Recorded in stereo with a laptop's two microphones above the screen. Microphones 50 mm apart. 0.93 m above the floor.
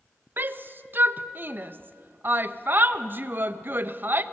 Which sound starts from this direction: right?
A shout, at 0.4 s.